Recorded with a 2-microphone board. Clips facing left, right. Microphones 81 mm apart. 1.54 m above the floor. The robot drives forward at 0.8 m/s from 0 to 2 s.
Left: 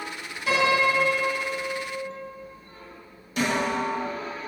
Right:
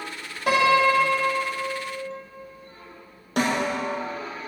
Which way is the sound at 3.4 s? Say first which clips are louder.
Right 1 dB; 65° right (ahead or behind).